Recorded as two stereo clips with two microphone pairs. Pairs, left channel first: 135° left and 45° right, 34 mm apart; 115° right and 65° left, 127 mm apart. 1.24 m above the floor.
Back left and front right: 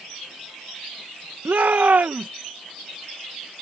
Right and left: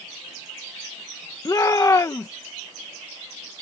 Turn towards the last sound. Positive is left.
turn(degrees=-60)